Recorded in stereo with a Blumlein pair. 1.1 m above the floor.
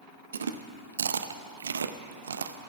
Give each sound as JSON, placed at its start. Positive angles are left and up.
{"t": 0.3, "sound": "chewing", "azimuth_deg": -70, "distance_m": 0.6}